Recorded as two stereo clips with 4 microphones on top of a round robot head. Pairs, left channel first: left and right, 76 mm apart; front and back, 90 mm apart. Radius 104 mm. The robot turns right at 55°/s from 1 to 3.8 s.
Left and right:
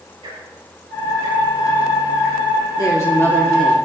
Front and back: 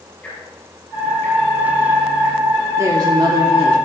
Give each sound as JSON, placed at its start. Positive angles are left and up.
{"t": 0.2, "sound": "ticking", "azimuth_deg": -80, "distance_m": 6.5}
{"t": 2.8, "sound": "a woman speaking", "azimuth_deg": 125, "distance_m": 2.5}